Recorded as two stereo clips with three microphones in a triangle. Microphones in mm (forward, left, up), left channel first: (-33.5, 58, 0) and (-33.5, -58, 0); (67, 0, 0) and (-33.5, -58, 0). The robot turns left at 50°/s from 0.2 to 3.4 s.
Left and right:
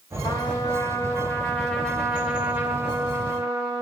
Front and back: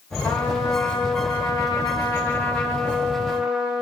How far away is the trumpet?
About 1.4 m.